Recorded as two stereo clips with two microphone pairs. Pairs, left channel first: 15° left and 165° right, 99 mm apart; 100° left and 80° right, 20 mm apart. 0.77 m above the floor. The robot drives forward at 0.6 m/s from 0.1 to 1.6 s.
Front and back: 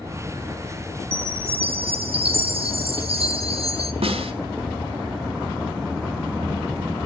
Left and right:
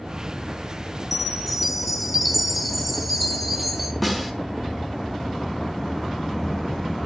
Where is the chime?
170° right, 3 m.